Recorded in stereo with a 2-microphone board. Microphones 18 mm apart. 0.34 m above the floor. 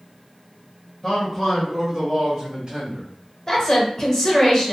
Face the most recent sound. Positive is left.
turn(degrees=30)  # may be behind; listen again after turning